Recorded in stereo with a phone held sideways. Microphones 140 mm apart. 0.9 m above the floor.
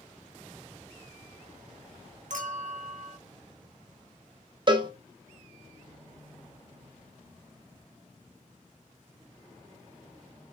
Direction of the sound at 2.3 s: 65° right (ahead or behind).